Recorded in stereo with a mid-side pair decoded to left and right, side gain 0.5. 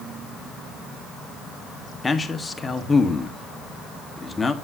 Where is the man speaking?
25° left, 1.3 m.